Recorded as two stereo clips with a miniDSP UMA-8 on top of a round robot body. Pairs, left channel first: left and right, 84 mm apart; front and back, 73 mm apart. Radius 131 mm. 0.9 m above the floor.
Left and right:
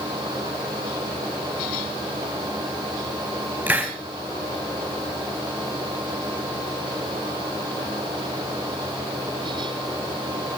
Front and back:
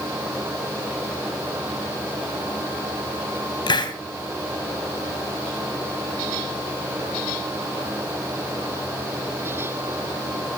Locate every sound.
3.7 s a hiss: 20° right, 3 m